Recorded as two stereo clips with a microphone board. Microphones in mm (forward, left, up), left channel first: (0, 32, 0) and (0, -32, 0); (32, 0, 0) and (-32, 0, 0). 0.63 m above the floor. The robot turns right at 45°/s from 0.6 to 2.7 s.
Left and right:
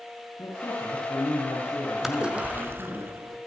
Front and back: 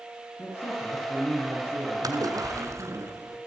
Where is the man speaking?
55° left, 8.5 m; by 3.0 s 150° left, 8.5 m.